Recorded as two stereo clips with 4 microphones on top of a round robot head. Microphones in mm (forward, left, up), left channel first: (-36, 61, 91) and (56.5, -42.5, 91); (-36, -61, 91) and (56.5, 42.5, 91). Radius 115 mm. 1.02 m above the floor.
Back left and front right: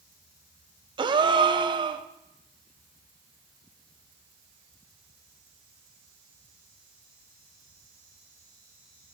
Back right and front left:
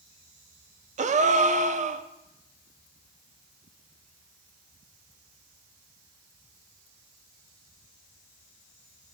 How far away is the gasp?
About 0.6 m.